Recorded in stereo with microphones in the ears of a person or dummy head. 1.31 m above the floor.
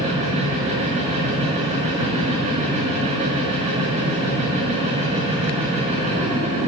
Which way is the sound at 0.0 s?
40° right (ahead or behind).